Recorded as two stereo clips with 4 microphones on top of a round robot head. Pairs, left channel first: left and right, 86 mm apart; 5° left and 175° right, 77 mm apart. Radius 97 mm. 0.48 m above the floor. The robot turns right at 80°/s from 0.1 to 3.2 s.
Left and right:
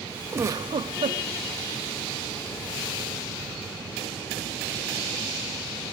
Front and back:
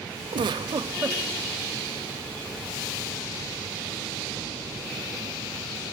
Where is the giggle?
155° right, 0.9 m; by 1.2 s 85° right, 0.9 m.